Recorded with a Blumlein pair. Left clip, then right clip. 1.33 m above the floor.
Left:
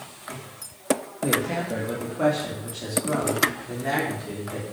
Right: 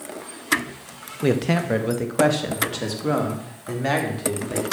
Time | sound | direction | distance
1.2 | a man speaking | 40° right | 1.2 m